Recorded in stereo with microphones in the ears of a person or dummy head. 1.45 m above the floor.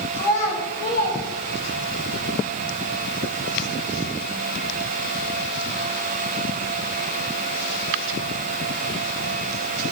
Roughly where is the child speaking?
Left.